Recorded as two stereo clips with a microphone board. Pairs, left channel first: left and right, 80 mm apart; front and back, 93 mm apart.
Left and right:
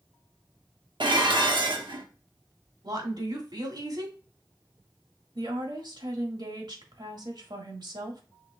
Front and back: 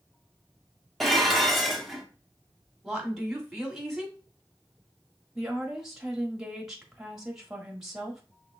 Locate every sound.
1.0 s dishes clattering: 90° right, 0.9 m
2.8 s a woman speaking: 90° right, 2 m
5.3 s a woman speaking: 95° right, 1.6 m